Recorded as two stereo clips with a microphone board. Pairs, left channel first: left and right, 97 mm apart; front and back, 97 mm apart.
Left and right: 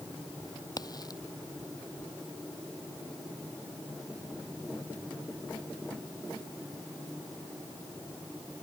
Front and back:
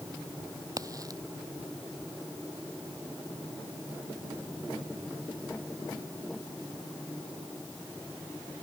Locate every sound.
0.8 s a crack: 130° left